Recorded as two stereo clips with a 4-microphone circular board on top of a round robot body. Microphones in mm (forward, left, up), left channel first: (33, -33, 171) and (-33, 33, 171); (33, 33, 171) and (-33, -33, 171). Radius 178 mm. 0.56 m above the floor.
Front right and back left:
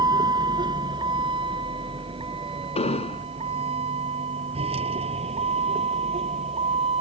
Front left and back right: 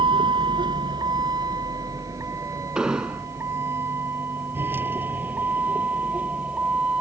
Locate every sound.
0.0 s a vehicle: 175° right; by 7.0 s 145° left
2.8 s an explosion: 55° right